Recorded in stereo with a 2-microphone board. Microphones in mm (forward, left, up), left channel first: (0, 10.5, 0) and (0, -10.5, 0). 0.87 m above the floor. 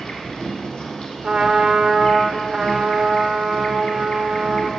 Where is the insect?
55° left (ahead or behind), 1.5 m.